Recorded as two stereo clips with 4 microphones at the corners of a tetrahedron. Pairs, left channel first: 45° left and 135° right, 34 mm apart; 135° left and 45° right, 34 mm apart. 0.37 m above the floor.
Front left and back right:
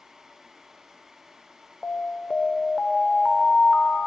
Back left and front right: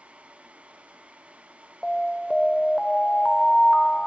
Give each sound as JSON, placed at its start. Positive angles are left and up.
{"t": 1.8, "sound": "an alarm", "azimuth_deg": 80, "distance_m": 0.9}